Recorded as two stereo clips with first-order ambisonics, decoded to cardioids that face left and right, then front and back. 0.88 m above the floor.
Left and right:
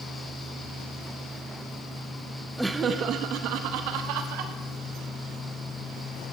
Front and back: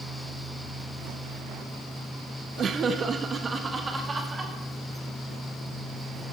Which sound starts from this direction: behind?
Laughter, at 2.6 s.